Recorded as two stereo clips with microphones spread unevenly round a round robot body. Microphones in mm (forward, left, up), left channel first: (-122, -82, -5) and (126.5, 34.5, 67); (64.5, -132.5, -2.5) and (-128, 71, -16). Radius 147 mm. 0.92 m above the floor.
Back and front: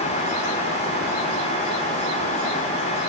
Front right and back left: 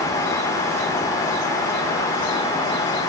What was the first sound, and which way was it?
Only background noise.